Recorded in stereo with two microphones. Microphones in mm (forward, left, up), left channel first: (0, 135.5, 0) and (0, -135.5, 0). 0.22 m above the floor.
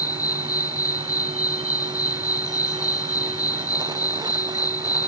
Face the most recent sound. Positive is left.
turn(degrees=60)  # may be behind; listen again after turning